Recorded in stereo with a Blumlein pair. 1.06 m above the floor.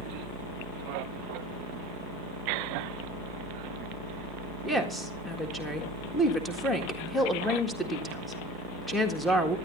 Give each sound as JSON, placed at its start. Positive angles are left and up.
{"t": 0.0, "sound": "a fan", "azimuth_deg": 40, "distance_m": 3.0}
{"t": 4.6, "sound": "a woman speaking", "azimuth_deg": 5, "distance_m": 1.7}